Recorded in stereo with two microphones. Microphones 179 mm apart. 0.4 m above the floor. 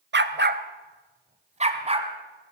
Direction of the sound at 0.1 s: 70° right (ahead or behind).